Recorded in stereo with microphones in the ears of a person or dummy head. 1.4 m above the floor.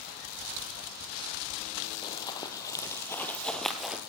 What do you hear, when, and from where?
2.0 s running footsteps: 25° left (ahead or behind), 3 m; by 4.0 s 5° right (ahead or behind), 2 m